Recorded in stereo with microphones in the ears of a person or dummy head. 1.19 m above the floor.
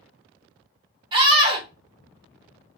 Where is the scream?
30° right (ahead or behind), 1.1 m.